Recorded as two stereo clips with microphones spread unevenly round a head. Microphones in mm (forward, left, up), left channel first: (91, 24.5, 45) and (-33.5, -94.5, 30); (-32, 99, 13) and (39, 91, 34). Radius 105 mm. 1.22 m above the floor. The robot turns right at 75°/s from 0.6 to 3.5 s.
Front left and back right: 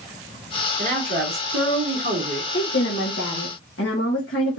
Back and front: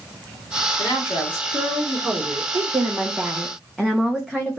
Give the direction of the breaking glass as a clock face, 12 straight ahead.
I don't hear breaking glass.